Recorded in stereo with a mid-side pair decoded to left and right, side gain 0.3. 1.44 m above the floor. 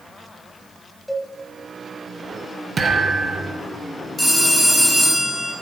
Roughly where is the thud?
Ahead right.